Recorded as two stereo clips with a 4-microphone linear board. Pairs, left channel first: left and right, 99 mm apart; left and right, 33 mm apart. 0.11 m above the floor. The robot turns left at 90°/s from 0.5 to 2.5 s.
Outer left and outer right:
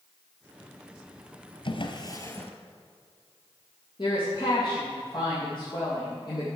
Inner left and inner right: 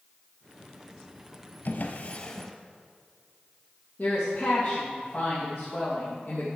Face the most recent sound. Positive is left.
turn(degrees=50)  # may be behind; listen again after turning